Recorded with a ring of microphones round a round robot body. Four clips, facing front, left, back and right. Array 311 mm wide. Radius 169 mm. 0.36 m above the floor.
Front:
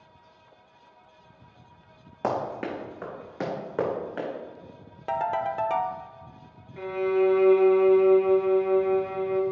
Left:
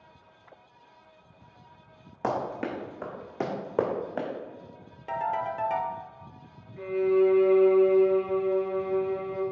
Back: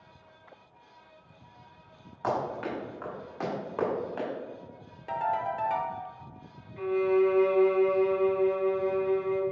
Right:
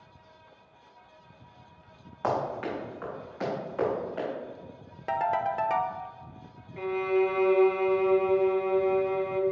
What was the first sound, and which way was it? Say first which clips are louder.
Running footsteps: right 1 dB, front 2 dB; 35° left.